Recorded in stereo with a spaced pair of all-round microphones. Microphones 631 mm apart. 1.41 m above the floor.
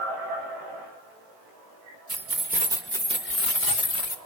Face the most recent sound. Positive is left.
turn(degrees=50)  # may be behind; listen again after turning